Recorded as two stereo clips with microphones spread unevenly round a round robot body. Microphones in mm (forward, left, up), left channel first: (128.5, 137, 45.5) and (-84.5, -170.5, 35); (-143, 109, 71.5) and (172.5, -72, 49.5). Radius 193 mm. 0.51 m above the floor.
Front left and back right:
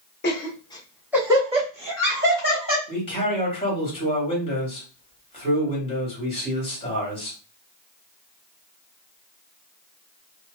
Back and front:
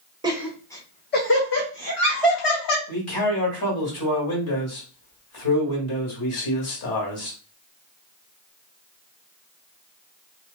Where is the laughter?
25° left, 0.8 m; by 2.8 s straight behind, 1.5 m.